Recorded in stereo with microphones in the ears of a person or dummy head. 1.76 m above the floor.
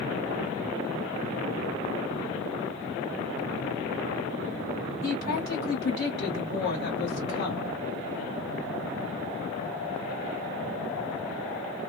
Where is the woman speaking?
55° left (ahead or behind), 1.4 m.